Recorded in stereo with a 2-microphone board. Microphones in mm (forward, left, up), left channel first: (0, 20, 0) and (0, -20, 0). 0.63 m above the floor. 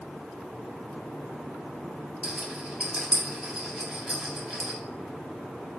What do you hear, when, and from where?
2.2 s a rattle: 25° right (ahead or behind), 1.5 m